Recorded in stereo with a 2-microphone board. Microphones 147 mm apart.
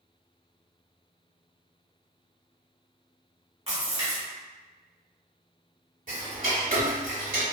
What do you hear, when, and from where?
3.7 s a splash: 40° right (ahead or behind), 1.5 m
6.1 s ticking: 60° right (ahead or behind), 0.9 m